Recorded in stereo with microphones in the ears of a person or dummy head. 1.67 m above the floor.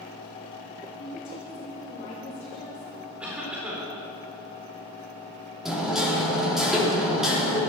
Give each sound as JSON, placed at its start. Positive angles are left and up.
{"t": 1.0, "sound": "a woman speaking", "side_deg": 35, "distance_m": 3.5}
{"t": 3.2, "sound": "a cough", "side_deg": -5, "distance_m": 4.0}
{"t": 5.7, "sound": "hammering", "side_deg": -5, "distance_m": 3.5}